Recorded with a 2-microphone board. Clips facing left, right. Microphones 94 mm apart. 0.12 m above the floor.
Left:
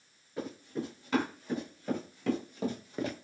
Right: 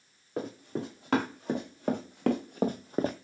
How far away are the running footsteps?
About 2.5 m.